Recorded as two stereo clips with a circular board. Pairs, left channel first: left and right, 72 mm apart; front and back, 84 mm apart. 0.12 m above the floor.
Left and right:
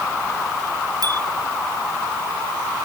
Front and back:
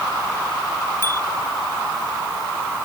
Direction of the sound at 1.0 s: 60° right.